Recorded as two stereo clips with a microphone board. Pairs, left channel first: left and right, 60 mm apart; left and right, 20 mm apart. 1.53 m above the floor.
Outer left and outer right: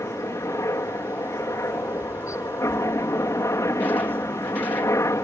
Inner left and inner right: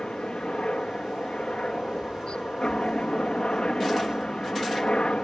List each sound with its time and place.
0.0 s a helicopter: 55° left (ahead or behind)